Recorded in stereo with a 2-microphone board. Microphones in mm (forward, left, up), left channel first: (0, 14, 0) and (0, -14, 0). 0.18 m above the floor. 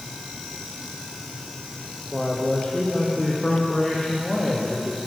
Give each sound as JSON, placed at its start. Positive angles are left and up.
{"t": 2.1, "sound": "a man speaking", "side_deg": 35, "distance_m": 7.5}